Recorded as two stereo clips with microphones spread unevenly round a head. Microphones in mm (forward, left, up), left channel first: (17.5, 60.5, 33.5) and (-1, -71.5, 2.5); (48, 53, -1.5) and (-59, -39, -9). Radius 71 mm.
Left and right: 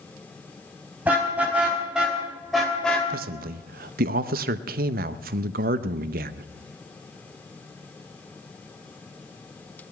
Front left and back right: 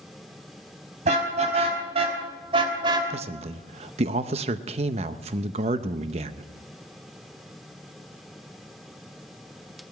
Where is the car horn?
Straight behind, 4 m; by 3.1 s 160° left, 2.5 m.